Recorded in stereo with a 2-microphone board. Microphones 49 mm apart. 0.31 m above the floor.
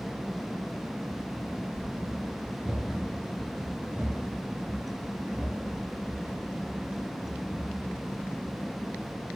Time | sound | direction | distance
1.1 | running footsteps | 5° left (ahead or behind) | 3.5 m